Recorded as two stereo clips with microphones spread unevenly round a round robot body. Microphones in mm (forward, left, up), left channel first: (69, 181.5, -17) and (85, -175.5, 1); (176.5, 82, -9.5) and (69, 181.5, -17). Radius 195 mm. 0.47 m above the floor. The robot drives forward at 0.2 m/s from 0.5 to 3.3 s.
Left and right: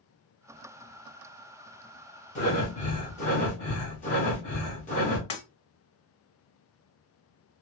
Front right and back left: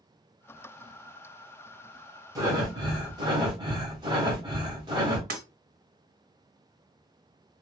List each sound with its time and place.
2.4 s breathing: 125° left, 1.2 m; by 5.2 s 135° left, 1.3 m
5.3 s breaking glass: 120° left, 1.7 m